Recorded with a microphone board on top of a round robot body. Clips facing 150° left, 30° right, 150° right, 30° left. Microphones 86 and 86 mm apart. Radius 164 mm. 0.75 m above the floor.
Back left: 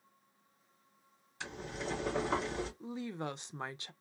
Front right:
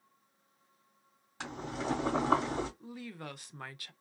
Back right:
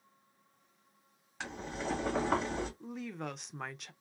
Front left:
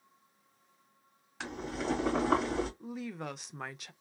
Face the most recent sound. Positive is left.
turn(degrees=115)